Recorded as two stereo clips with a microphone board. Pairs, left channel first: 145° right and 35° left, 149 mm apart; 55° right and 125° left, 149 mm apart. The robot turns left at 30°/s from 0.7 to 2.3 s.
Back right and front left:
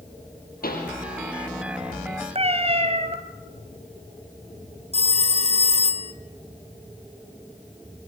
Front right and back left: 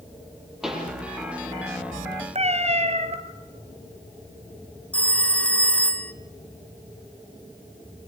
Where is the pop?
150° right, 6.5 m; by 0.9 s 155° right, 6.5 m.